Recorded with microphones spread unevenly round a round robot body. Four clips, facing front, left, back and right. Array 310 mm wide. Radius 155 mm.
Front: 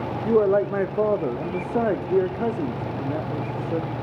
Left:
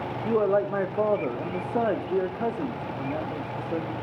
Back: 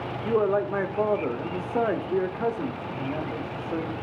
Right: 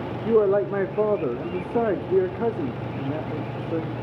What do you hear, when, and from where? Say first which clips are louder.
0.2 s a man speaking: right 4 dB, front 4 dB; 40° right, 0.7 m